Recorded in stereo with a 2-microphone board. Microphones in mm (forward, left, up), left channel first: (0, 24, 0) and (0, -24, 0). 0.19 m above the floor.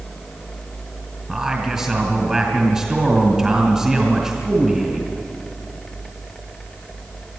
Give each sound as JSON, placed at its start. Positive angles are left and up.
{"t": 1.3, "sound": "a man speaking", "side_deg": -15, "distance_m": 2.5}